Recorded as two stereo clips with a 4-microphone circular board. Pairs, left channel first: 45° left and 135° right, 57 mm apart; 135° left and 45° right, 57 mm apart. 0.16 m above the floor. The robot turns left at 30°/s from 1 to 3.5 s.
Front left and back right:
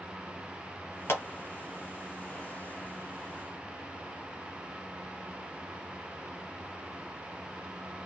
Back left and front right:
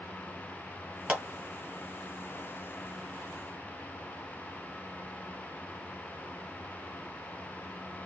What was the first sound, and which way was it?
A clap, 20° left.